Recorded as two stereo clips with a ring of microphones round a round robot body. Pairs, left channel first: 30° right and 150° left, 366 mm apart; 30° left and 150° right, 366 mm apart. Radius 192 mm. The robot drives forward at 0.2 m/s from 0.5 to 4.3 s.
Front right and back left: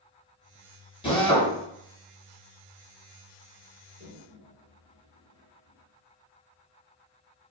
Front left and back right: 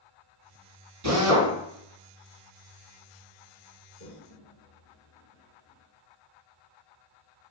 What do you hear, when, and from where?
1.0 s a drill: 105° right, 4 m
4.0 s a toilet flushing: 135° right, 3 m